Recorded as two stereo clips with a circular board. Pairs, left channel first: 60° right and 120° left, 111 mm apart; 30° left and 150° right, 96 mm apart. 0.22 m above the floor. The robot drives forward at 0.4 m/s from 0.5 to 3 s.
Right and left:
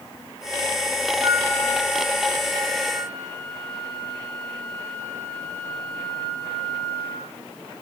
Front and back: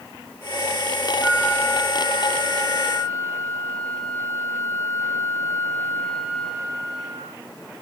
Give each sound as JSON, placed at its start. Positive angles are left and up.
{"t": 1.2, "sound": "a flute", "azimuth_deg": 115, "distance_m": 4.5}